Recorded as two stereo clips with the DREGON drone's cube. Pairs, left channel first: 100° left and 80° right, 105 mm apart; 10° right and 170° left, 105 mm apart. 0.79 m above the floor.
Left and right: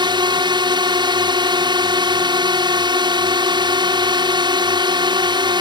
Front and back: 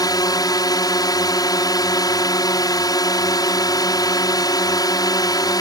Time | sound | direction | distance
0.0 | a drone | 55° right | ?